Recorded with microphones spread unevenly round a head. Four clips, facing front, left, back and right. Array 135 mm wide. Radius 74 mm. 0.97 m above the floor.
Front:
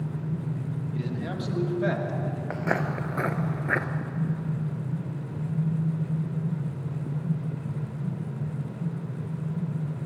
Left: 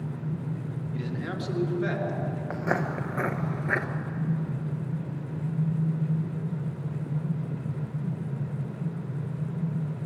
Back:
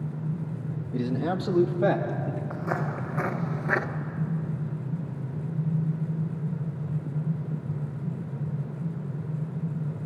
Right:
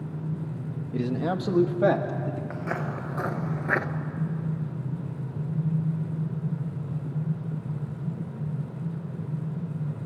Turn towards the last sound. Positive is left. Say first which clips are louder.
# even, front 1 dB
turn(degrees=65)